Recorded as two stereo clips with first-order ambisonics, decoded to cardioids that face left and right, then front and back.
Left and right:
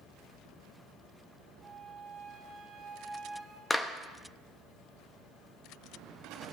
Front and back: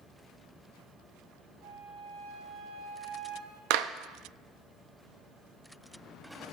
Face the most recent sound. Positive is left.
turn(degrees=170)